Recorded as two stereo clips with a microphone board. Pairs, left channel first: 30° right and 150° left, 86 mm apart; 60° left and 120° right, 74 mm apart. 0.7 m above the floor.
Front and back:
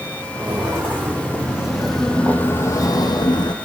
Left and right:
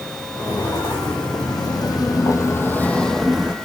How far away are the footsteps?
About 3 m.